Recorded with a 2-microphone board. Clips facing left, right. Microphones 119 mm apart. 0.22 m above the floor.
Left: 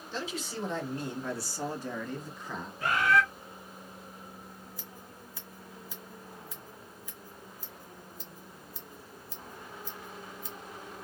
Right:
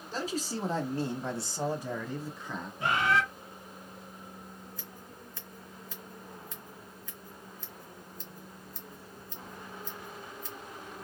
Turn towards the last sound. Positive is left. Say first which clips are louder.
# even
turn(degrees=10)  # may be behind; listen again after turning